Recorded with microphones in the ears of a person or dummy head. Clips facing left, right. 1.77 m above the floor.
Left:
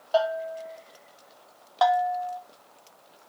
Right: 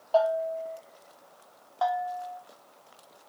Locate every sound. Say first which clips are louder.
0.1 s a bell: right 1 dB; 25° left (ahead or behind), 3 m
1.8 s a bell: left 6 dB; 70° left (ahead or behind), 0.9 m